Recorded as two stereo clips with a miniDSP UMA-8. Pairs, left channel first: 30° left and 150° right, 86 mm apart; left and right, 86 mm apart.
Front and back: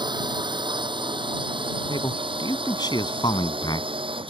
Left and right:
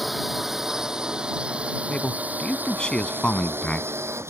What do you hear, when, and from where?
0.0 s a drone: 175° right; by 4.3 s 145° right
1.9 s a man speaking: 15° left